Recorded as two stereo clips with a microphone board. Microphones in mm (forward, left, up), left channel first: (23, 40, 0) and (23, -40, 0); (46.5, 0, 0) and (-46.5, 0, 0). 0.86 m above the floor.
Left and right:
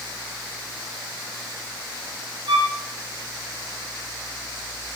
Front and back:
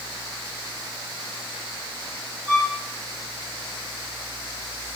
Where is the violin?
100° right, 1.5 m.